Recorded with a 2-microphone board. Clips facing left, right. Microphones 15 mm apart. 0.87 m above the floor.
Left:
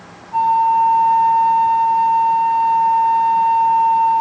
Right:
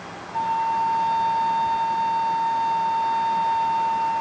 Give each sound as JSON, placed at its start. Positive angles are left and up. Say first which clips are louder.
{"t": 0.3, "sound": "a flute", "louder": "left 9 dB", "side_deg": -60, "distance_m": 2.0}